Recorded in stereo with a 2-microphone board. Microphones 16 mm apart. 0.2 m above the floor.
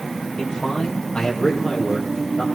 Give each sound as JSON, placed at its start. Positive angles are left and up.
{"t": 0.4, "sound": "a man speaking", "side_deg": 55, "distance_m": 6.0}